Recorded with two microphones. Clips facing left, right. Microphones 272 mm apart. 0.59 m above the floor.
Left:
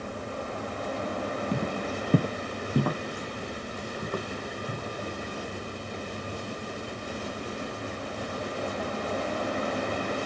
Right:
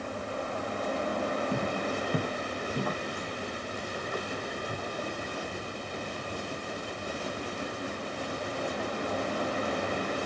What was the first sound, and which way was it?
Footsteps, 20° left (ahead or behind).